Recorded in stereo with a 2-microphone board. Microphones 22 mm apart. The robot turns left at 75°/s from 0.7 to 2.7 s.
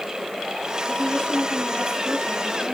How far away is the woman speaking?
About 9.5 m.